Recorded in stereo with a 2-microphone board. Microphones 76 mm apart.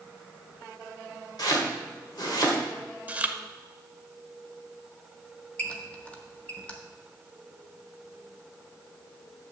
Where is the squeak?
15° left (ahead or behind), 1.1 m.